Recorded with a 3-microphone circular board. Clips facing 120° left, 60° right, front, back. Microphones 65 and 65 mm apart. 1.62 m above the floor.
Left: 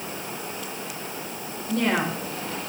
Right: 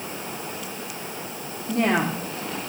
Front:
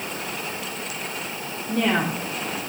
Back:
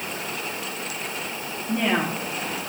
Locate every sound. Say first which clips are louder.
1.7 s a woman speaking: right 2 dB, front 1 dB; 105° right, 4.5 m